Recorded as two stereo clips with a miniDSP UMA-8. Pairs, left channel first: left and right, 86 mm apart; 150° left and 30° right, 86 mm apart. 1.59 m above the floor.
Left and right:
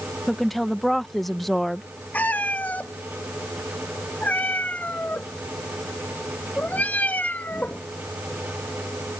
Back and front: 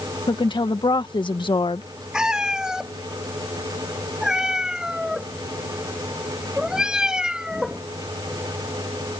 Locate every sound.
0.3 s a woman speaking: straight behind
2.1 s a cat meowing: 45° left